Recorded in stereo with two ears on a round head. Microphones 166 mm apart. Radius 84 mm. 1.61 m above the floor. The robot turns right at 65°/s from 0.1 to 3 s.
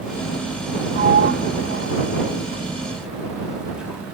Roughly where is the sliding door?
Right.